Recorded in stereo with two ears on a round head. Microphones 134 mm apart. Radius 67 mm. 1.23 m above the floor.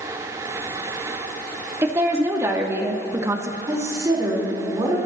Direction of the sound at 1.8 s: 20° right (ahead or behind).